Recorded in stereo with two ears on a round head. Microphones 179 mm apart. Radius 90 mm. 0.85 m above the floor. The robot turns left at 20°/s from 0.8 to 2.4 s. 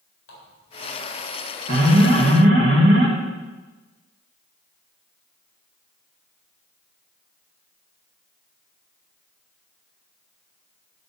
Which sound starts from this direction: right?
An alarm, at 1.7 s.